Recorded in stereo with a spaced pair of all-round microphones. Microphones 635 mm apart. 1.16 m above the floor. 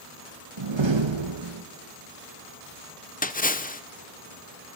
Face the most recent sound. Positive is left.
turn(degrees=15)  # may be behind; listen again after turning